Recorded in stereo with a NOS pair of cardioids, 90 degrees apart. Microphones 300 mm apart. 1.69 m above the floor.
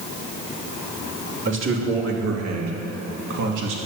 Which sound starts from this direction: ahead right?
A man speaking, at 1.4 s.